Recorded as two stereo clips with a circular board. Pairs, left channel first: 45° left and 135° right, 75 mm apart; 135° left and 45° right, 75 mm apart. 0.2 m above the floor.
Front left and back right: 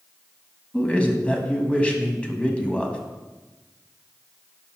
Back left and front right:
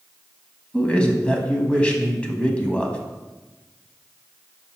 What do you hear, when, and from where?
0.7 s a man speaking: 90° left, 1.0 m